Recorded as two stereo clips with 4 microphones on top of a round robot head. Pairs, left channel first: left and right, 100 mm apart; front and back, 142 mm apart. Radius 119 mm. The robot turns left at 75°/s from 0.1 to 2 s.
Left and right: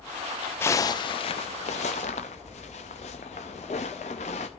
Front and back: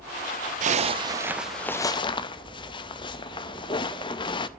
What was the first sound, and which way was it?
A zipper, 155° left.